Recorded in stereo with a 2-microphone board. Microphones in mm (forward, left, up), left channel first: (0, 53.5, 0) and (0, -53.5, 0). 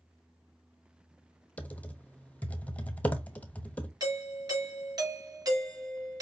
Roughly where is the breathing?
I don't hear breathing.